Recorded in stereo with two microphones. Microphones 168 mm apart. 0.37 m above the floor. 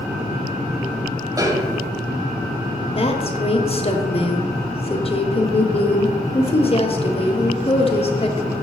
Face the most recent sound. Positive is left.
turn(degrees=35)  # may be behind; listen again after turning